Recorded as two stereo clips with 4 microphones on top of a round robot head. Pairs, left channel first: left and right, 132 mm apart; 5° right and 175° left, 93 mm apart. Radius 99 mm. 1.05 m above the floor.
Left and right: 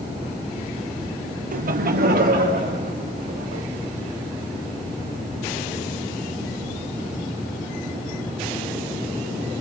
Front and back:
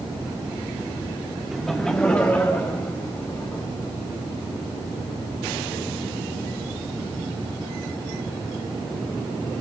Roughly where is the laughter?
Right.